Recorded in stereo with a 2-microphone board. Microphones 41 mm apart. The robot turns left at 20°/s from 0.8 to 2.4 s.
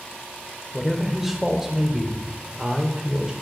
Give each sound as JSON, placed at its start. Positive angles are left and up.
{"t": 0.7, "sound": "a man speaking", "azimuth_deg": 0, "distance_m": 1.0}